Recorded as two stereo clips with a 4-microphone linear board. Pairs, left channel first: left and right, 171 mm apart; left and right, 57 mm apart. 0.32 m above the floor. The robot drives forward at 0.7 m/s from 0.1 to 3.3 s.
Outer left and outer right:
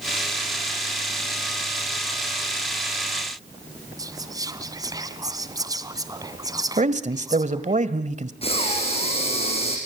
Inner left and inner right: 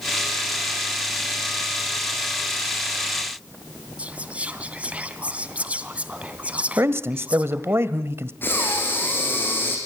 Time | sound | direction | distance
4.0 | whispering | 20° right (ahead or behind) | 2.5 m
6.8 | a man speaking | 40° right (ahead or behind) | 1.5 m
8.4 | breathing | 35° left (ahead or behind) | 5.5 m